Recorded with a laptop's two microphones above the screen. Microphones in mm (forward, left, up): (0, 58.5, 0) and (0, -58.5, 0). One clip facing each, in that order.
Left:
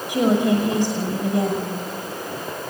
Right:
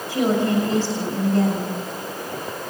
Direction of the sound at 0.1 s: 15° left (ahead or behind).